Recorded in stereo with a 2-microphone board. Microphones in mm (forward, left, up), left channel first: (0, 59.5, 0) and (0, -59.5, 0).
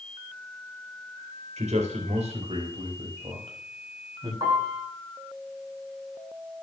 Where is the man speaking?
70° right (ahead or behind), 3.5 m; by 4.3 s 40° right (ahead or behind), 6 m.